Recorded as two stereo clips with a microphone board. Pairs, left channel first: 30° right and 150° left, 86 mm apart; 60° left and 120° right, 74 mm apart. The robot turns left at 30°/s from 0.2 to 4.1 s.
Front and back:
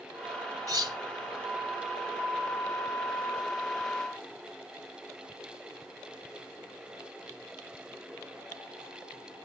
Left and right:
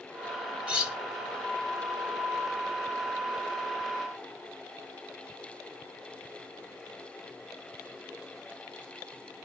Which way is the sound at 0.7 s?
170° left.